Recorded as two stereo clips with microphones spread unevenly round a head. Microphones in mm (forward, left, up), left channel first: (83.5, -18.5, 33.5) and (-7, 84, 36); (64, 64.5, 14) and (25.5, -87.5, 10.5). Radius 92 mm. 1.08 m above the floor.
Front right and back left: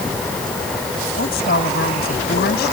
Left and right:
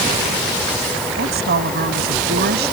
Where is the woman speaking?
85° right.